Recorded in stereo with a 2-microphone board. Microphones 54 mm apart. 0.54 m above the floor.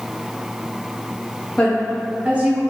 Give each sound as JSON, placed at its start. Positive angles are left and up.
{"t": 1.6, "sound": "a woman speaking", "side_deg": 20, "distance_m": 0.8}